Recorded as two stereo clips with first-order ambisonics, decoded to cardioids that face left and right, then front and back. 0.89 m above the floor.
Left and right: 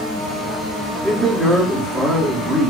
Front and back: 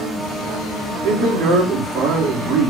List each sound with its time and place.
1.0 s a man speaking: 175° right, 1.7 m